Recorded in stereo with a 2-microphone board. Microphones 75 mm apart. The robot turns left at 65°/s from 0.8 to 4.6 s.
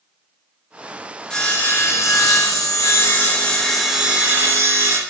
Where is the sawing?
165° left, 0.9 m; by 5.0 s 50° right, 0.9 m.